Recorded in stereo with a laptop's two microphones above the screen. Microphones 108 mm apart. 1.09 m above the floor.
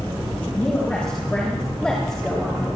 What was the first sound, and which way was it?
A woman speaking, 15° left (ahead or behind).